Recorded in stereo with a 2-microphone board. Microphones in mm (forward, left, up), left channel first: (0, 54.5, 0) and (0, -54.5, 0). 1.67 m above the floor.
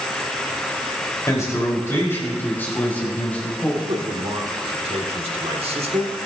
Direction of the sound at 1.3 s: 30° left (ahead or behind).